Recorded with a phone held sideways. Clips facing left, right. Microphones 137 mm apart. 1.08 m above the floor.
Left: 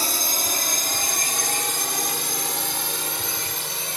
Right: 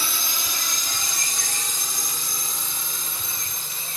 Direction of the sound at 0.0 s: 45° left (ahead or behind).